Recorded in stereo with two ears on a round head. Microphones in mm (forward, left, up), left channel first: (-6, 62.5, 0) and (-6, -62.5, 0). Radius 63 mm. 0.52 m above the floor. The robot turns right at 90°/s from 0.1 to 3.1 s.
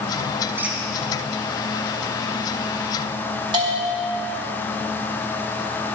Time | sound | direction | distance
0.6 | a squeak | 15° right (ahead or behind) | 1.4 m
3.5 | a bell | 35° right (ahead or behind) | 2.5 m